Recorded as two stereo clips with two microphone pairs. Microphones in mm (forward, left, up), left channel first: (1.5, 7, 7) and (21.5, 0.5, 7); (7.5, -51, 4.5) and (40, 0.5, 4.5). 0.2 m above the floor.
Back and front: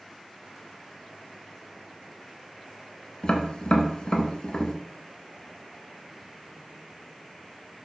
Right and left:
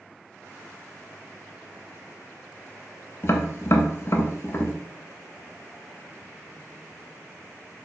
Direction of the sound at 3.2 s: 155° right.